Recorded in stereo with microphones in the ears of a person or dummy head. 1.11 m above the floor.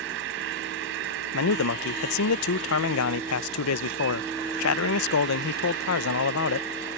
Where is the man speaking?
70° left (ahead or behind).